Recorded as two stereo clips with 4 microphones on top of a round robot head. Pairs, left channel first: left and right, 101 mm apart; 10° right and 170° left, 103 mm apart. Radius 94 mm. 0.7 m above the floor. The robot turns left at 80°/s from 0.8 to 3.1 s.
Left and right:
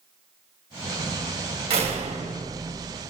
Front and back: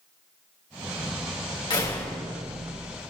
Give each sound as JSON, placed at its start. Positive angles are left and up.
{"t": 1.7, "sound": "a door slam", "azimuth_deg": -60, "distance_m": 3.5}